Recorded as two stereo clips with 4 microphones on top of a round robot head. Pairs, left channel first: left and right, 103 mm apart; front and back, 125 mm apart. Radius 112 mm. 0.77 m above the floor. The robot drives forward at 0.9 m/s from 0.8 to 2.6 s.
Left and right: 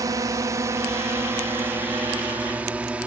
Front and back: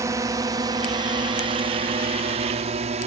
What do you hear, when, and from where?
0.0 s a drone: 125° right; by 3.1 s 170° right